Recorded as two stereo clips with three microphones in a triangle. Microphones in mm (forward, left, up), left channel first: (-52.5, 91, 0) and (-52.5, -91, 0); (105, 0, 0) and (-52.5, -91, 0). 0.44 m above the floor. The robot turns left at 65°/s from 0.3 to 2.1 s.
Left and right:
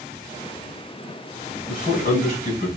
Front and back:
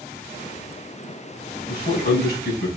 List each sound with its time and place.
1.7 s a man speaking: 70° left, 3.5 m; by 2.7 s 45° left, 3.5 m